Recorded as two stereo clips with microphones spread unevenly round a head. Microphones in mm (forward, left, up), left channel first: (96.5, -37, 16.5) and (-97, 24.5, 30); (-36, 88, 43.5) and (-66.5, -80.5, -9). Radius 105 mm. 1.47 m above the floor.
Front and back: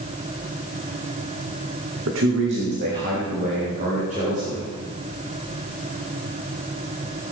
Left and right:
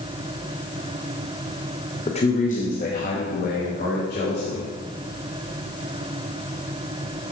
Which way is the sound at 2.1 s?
135° left.